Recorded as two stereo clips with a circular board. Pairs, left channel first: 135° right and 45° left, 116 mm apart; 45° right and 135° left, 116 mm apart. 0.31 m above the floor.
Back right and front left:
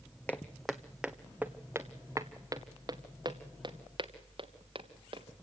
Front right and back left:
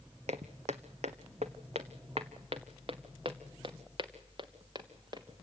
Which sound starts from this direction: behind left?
Footsteps, at 0.3 s.